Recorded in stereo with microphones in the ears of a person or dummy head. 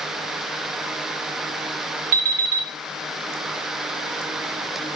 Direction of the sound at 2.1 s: 50° right (ahead or behind).